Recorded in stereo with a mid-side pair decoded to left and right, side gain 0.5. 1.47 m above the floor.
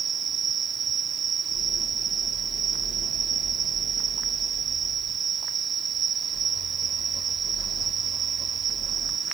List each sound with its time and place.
0.0 s an insect: 45° right